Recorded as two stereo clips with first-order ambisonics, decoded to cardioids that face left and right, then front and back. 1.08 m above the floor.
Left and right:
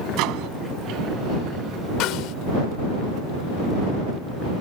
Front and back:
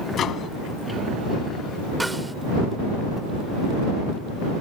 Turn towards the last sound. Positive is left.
turn(degrees=95)